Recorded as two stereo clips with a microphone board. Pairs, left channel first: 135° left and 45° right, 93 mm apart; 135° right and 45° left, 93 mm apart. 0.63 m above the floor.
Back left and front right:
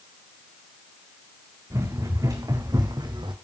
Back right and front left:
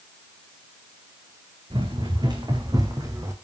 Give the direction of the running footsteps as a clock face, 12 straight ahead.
12 o'clock.